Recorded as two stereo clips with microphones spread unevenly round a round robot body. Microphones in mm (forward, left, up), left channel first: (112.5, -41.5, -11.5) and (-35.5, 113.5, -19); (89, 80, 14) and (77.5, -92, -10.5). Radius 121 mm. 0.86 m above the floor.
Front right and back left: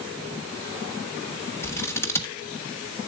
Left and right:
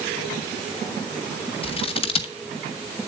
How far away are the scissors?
About 1.2 m.